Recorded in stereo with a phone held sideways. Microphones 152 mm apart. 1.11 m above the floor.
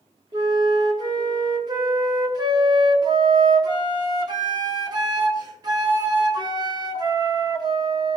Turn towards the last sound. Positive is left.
turn(degrees=-30)  # may be behind; listen again after turning